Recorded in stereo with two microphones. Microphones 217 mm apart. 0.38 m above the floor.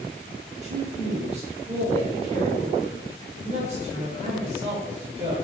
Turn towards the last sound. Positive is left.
turn(degrees=-30)  # may be behind; listen again after turning